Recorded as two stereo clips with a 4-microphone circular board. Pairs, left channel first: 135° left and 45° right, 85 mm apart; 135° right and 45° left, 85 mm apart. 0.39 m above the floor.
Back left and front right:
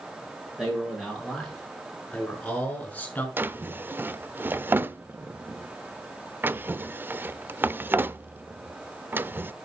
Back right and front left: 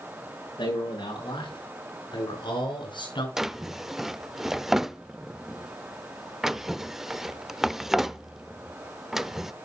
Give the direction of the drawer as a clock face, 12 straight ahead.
1 o'clock.